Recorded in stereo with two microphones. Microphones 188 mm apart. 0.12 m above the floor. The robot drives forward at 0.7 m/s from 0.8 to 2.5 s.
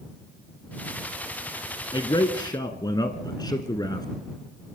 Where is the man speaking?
25° left (ahead or behind), 1.1 m; by 4.1 s 20° left (ahead or behind), 1.2 m.